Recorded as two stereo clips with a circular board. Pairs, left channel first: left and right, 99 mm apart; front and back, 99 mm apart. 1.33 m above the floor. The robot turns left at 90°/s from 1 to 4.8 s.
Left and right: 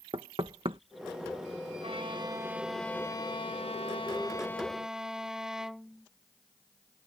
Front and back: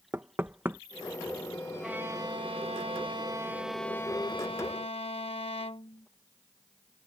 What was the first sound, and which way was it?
Knocking, 110° right.